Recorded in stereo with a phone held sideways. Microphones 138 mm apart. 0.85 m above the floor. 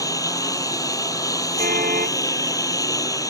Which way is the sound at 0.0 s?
25° left (ahead or behind).